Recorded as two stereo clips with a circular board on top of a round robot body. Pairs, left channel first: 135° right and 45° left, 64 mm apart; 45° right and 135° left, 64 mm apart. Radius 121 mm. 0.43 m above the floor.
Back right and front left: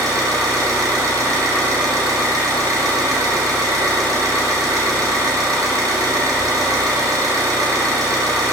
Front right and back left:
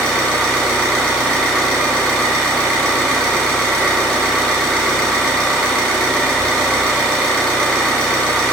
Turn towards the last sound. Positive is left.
turn(degrees=30)